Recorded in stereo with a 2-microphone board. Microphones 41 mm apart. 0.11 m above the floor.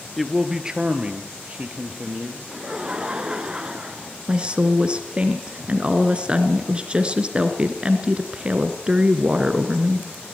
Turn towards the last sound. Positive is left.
turn(degrees=-25)  # may be behind; listen again after turning